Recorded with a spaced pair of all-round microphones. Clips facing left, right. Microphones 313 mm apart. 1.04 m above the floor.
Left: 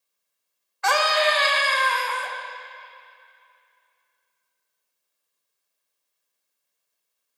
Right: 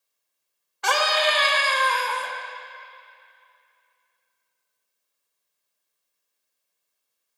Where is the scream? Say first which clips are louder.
Left 2 dB; 40° right (ahead or behind), 0.9 m.